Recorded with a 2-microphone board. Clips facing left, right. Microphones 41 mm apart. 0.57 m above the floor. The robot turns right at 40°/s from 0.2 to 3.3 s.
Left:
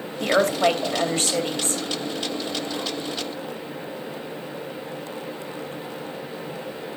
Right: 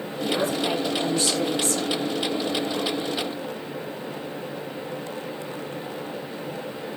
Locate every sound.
0.2 s a woman speaking: 80° left, 2.5 m; by 1.8 s 145° left, 2.5 m